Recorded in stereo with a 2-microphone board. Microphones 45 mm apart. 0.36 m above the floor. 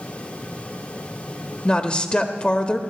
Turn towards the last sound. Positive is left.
turn(degrees=25)  # may be behind; listen again after turning